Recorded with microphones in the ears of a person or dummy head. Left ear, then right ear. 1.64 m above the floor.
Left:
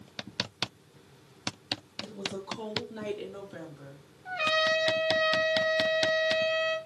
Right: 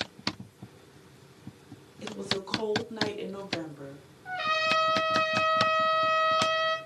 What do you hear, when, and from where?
2.0 s a woman speaking: 30° right (ahead or behind), 3 m; by 4.0 s 15° right (ahead or behind), 4.5 m
4.2 s a trumpet: 15° left (ahead or behind), 1.7 m